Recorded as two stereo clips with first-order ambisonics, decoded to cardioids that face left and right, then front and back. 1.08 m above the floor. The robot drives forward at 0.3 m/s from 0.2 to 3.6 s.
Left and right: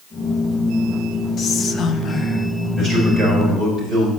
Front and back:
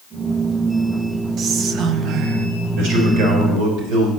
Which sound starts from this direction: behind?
A man speaking, at 2.8 s.